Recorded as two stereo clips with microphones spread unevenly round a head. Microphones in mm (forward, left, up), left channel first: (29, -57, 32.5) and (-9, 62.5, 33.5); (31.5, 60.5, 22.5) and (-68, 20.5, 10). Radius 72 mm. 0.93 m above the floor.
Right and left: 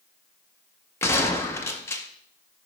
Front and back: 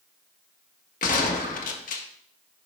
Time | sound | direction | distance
1.0 | a gunshot | straight ahead | 0.7 m